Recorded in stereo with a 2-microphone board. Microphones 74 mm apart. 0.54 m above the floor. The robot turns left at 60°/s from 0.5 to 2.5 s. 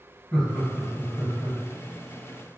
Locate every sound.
0.3 s laughter: 10° left (ahead or behind), 1.6 m; by 1.6 s 65° left (ahead or behind), 1.6 m